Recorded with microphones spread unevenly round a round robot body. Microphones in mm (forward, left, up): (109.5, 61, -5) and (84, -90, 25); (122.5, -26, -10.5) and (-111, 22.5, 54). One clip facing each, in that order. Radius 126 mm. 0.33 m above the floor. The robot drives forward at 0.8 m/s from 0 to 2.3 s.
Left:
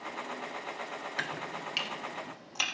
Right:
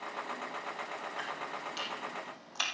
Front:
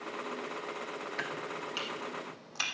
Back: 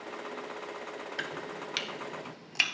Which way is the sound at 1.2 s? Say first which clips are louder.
Left 2 dB, even; 95° left.